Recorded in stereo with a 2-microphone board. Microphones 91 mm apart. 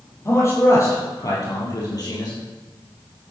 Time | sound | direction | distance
0.2 | a man speaking | 30° left (ahead or behind) | 5 m